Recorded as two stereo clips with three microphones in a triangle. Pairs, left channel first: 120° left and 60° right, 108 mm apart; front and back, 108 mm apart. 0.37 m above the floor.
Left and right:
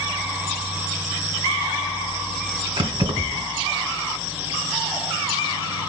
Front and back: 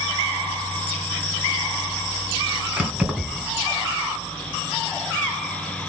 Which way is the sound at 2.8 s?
100° right.